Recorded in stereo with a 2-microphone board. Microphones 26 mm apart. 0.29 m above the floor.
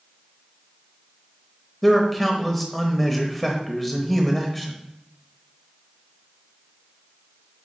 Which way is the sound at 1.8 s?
5° left (ahead or behind).